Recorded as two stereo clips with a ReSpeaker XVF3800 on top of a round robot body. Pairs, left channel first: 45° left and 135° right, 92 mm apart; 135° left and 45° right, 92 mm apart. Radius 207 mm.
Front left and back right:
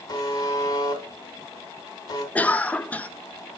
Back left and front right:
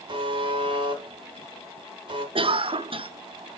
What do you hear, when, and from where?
0.1 s a buzzer: 5° right, 1.8 m
2.4 s a cough: 30° right, 0.9 m